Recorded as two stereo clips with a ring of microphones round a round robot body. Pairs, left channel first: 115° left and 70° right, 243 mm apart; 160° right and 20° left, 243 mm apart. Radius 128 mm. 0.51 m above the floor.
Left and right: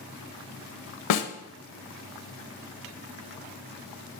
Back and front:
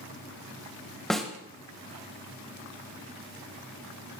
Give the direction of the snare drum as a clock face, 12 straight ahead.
8 o'clock.